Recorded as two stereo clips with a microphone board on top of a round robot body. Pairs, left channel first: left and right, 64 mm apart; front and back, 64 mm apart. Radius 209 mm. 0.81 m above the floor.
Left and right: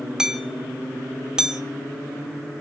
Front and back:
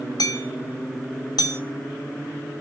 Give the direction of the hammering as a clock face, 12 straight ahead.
12 o'clock.